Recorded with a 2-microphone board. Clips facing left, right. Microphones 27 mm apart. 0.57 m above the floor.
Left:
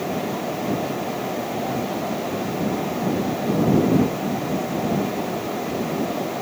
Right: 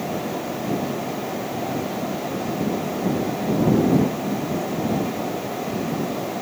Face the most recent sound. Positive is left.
No sound to turn to.